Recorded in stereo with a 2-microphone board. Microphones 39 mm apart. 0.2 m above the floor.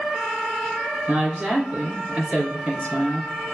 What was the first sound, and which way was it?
A woman speaking, 50° right (ahead or behind).